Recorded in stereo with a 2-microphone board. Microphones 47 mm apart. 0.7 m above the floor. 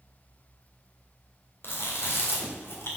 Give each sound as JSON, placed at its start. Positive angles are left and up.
{"t": 1.6, "sound": "chewing", "side_deg": 55, "distance_m": 2.0}